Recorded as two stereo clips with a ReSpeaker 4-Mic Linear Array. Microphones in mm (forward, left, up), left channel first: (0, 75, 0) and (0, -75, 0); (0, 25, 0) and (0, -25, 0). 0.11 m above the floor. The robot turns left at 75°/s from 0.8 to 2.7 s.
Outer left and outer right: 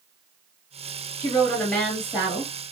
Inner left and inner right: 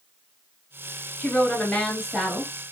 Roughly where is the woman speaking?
Left.